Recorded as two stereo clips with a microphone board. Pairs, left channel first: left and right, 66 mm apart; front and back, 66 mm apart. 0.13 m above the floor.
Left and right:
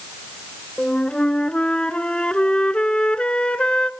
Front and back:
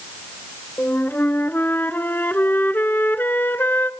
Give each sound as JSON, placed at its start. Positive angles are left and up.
{"t": 0.8, "sound": "a flute", "azimuth_deg": 25, "distance_m": 0.7}